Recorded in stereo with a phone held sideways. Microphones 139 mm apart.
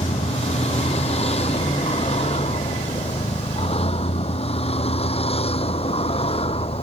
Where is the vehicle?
50° left (ahead or behind); by 6.8 s 45° left (ahead or behind).